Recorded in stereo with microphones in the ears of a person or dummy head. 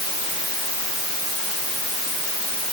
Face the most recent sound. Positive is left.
No sound to turn to.